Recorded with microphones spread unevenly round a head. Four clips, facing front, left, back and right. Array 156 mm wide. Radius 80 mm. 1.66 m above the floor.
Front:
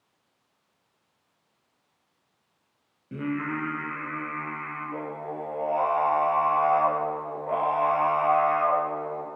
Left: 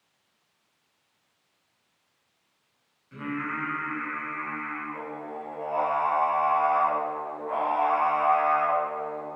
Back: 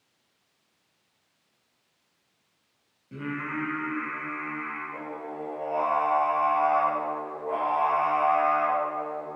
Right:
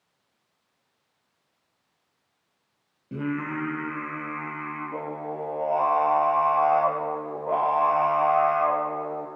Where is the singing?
70° right, 0.9 m.